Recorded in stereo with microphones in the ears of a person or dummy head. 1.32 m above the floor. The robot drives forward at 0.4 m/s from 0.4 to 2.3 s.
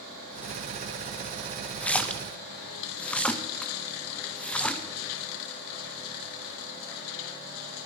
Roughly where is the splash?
Centre.